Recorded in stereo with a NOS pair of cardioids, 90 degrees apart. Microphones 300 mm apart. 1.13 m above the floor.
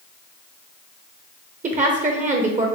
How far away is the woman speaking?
About 0.5 m.